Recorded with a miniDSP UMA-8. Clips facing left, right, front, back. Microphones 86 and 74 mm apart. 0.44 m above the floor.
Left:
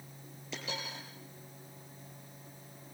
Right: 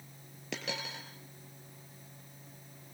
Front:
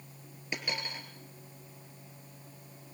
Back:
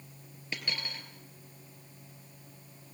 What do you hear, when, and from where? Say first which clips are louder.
0.5 s a dropped coin: right 2 dB, front 2 dB; 75° right, 3 m